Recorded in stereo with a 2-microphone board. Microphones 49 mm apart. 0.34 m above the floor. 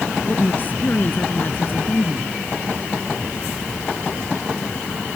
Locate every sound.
0.2 s a woman speaking: 40° left (ahead or behind)